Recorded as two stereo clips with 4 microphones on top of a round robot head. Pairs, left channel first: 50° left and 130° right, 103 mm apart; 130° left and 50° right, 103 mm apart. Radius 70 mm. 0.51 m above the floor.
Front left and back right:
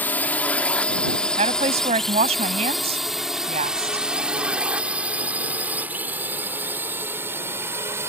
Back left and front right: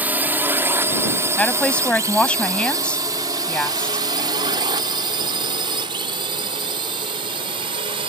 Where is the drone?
Straight ahead; by 8.1 s 65° right.